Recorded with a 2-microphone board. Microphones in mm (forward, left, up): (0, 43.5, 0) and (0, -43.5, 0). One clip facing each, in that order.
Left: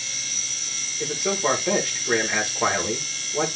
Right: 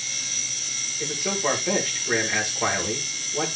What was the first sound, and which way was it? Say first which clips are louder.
A man speaking: left 2 dB; 15° left (ahead or behind).